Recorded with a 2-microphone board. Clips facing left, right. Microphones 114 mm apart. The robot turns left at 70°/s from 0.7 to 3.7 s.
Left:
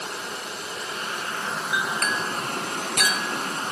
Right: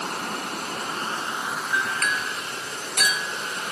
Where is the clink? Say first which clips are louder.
Even; 10° left (ahead or behind), 1.4 m; by 3.7 s 25° left (ahead or behind), 1.4 m.